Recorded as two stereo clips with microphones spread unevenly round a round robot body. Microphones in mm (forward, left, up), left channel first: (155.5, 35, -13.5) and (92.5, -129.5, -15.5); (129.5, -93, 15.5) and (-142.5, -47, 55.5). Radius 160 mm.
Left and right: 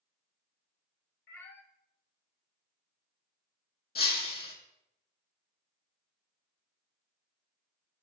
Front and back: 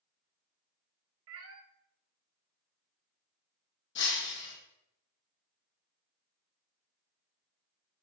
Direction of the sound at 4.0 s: 50° left.